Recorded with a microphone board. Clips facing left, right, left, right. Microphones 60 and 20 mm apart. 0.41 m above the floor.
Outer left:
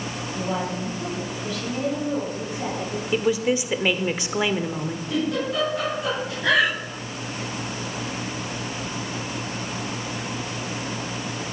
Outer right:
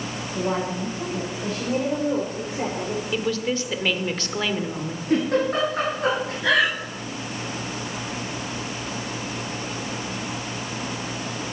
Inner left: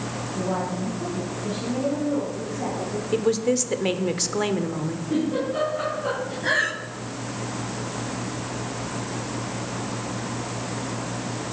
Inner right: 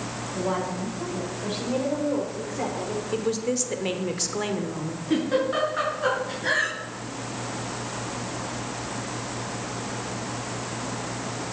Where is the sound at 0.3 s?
55° right (ahead or behind), 8.5 m; by 3.0 s 60° right (ahead or behind), 8 m.